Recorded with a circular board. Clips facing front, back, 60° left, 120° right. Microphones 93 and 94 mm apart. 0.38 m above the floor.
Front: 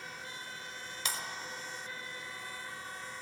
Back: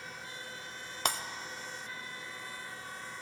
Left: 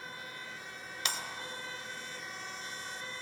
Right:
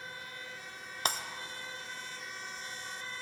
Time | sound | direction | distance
1.1 | breaking glass | 160° right | 0.5 m